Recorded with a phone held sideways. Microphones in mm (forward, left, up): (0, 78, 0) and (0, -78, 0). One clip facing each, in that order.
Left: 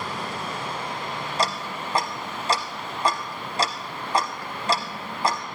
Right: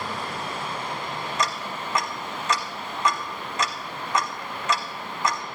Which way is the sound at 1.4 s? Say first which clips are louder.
Left 3 dB; 35° left (ahead or behind).